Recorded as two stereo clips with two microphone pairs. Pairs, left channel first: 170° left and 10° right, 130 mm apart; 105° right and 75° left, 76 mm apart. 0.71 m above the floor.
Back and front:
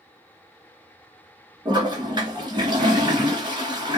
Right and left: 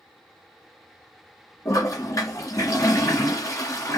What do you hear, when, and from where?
1.6 s a toilet flushing: 65° right, 2 m